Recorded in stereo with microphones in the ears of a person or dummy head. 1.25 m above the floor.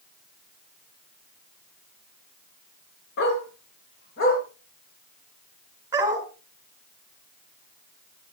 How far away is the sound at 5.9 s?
About 2.5 m.